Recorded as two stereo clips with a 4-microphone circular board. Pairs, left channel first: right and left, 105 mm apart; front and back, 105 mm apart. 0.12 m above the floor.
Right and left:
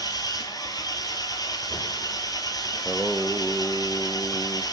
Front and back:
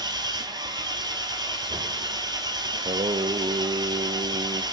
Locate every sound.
0.0 s an engine running: 135° right, 0.7 m
2.7 s singing: straight behind, 0.5 m